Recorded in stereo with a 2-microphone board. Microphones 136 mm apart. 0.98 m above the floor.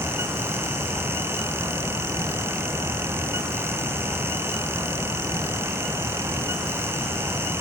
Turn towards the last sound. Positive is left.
No sound to turn to.